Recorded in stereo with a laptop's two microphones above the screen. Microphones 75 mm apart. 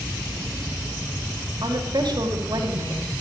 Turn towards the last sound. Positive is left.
turn(degrees=-65)  # may be behind; listen again after turning